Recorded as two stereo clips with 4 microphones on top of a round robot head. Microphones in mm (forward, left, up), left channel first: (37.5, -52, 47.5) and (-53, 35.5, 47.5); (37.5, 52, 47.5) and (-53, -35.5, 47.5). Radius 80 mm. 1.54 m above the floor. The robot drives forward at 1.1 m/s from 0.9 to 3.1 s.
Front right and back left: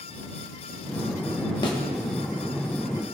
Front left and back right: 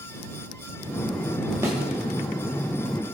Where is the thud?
75° right, 1.1 m; by 1.8 s 90° right, 1.0 m.